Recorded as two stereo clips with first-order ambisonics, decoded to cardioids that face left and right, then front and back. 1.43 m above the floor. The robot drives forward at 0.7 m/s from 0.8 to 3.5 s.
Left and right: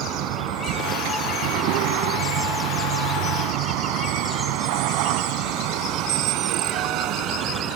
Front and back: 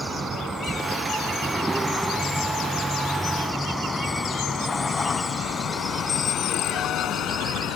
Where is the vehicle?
110° right; by 7.8 s 45° right.